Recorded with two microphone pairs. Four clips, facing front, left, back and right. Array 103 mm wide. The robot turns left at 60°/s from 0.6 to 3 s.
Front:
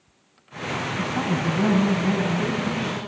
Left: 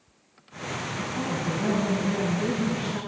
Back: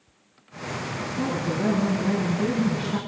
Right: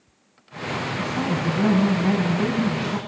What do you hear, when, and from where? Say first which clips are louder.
1.0 s a woman speaking: right 4 dB, front 2 dB; 10° right, 7.5 m; by 3.0 s 130° right, 7.5 m